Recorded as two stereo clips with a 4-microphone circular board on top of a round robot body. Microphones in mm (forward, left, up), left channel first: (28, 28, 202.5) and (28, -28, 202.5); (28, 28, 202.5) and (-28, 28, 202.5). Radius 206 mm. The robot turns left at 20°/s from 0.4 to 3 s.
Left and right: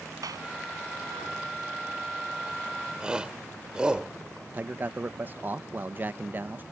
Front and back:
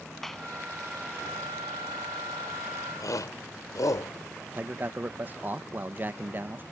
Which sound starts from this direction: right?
A clap, at 0.2 s.